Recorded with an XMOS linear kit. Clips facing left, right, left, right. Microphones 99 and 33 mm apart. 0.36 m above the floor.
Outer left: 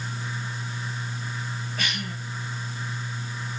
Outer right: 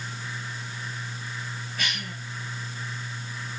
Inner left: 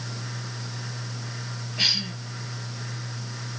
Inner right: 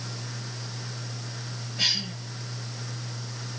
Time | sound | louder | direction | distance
1.8 | a cough | outer left 1 dB, inner left 2 dB | 40° left (ahead or behind) | 3.5 m